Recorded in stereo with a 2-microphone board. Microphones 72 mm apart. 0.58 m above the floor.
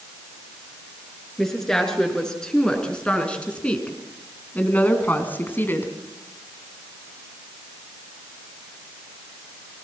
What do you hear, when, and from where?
1.4 s a woman speaking: 5° left (ahead or behind), 6.5 m; by 5.9 s 30° left (ahead or behind), 4 m